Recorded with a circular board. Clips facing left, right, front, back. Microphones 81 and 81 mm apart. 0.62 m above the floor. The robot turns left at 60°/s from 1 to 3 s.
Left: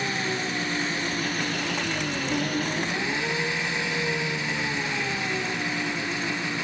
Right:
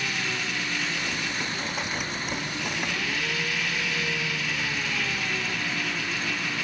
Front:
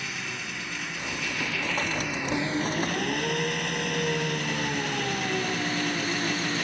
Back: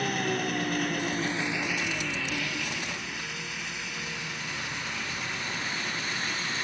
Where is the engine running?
145° left; by 6.6 s 25° left.